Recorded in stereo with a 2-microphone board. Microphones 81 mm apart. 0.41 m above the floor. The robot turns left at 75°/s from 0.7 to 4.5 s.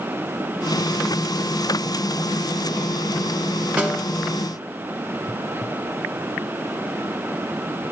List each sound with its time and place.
3.8 s a snare drum: 15° right (ahead or behind), 0.8 m; by 4.1 s 10° left (ahead or behind), 0.8 m